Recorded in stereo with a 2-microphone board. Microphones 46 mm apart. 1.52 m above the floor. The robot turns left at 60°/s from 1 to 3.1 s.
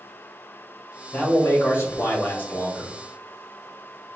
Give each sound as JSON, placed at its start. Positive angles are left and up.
{"t": 1.1, "sound": "a man speaking", "azimuth_deg": 145, "distance_m": 1.2}